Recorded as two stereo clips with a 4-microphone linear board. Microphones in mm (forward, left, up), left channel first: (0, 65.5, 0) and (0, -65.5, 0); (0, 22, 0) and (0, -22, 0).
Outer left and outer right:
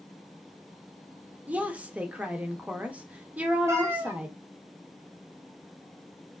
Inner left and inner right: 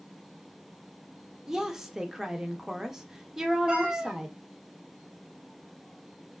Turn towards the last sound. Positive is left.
turn(degrees=-20)  # may be behind; listen again after turning